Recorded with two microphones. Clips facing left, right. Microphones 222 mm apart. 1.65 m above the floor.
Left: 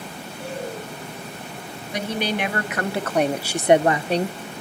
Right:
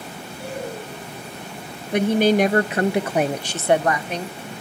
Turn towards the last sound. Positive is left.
turn(degrees=40)  # may be behind; listen again after turning